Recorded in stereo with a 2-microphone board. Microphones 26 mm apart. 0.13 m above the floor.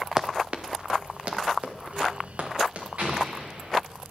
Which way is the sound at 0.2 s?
20° right (ahead or behind).